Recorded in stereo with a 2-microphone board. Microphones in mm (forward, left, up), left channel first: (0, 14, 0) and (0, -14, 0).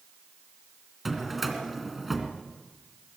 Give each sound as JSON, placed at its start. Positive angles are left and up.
{"t": 1.1, "sound": "a drawer", "side_deg": 0, "distance_m": 2.5}